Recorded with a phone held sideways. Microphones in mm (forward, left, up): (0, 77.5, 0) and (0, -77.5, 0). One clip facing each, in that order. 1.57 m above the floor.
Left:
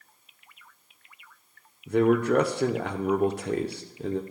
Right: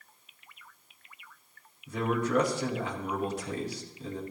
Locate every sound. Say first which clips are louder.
1.9 s a man speaking: left 8 dB; 65° left (ahead or behind), 0.9 m